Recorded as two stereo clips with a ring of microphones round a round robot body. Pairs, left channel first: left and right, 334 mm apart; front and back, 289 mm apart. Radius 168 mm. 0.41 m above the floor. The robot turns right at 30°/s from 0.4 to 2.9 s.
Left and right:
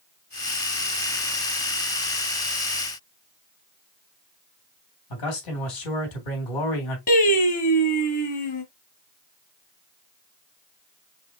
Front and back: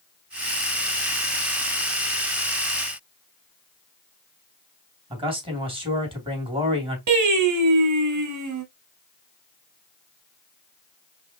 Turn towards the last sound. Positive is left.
turn(degrees=155)